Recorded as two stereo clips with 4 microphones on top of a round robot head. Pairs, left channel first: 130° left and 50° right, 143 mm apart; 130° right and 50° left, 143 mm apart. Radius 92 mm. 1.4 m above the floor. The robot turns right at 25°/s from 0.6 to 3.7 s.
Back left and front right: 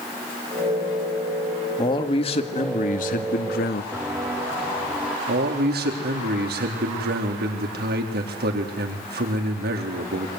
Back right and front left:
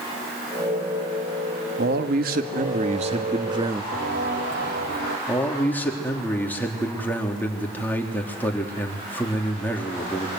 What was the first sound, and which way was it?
A man speaking, 65° left.